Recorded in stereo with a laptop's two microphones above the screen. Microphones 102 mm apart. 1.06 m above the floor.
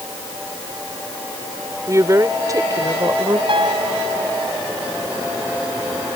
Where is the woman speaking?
35° right (ahead or behind); by 3.4 s 40° right (ahead or behind).